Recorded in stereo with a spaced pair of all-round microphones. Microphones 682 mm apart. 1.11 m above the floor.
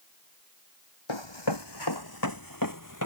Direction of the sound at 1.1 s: 40° left (ahead or behind).